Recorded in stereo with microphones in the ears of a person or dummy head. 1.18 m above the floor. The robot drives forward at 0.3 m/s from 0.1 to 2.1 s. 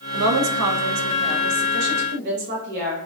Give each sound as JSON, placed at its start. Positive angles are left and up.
{"t": 0.1, "sound": "a woman speaking", "side_deg": -75, "distance_m": 0.6}